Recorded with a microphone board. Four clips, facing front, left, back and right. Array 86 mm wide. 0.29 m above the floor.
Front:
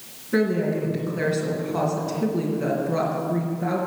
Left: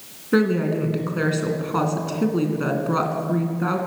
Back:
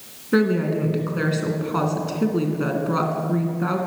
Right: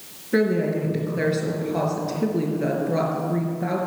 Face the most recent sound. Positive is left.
turn(degrees=125)